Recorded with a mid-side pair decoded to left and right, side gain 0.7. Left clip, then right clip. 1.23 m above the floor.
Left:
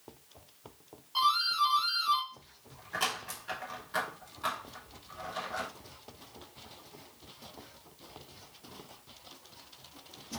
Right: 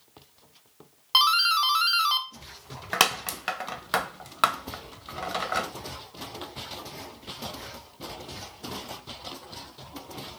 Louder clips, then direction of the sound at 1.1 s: Right 7 dB; 70° right.